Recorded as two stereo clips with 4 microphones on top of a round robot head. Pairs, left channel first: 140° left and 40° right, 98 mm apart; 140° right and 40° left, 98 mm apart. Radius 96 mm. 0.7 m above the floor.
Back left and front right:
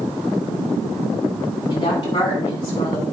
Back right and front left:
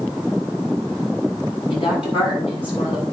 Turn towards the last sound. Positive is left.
turn(degrees=-170)